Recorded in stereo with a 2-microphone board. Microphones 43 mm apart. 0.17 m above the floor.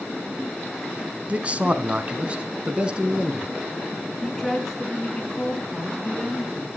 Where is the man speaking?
30° right (ahead or behind), 1.1 m; by 3.5 s 20° right (ahead or behind), 2.0 m.